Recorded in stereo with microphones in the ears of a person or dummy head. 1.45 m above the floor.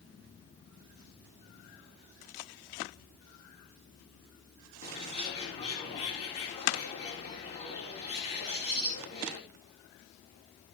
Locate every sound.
4.8 s a bird: 35° left (ahead or behind), 4 m